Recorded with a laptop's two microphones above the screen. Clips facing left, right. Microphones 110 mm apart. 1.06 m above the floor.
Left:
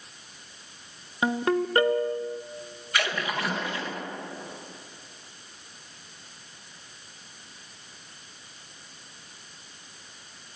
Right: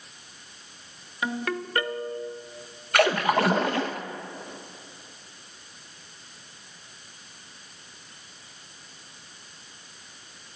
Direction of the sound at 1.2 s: 30° left (ahead or behind).